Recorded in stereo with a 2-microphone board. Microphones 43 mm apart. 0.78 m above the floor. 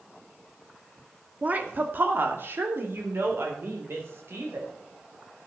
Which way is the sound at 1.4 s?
40° right (ahead or behind).